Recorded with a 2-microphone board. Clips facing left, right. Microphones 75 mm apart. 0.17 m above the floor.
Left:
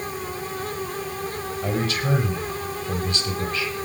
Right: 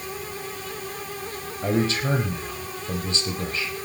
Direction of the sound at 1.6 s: 25° right (ahead or behind).